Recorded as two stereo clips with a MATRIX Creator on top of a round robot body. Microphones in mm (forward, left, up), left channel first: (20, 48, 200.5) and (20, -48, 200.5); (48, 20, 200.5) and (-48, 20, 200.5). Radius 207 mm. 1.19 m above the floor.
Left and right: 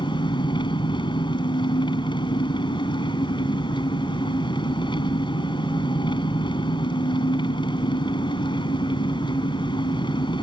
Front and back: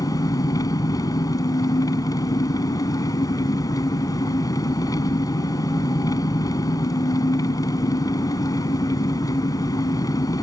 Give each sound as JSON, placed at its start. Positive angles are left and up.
{"t": 0.0, "sound": "an engine running", "azimuth_deg": 50}